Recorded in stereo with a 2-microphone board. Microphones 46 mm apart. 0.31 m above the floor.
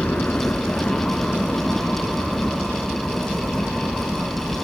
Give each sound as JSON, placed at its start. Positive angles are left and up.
{"t": 0.0, "sound": "a helicopter", "side_deg": 30}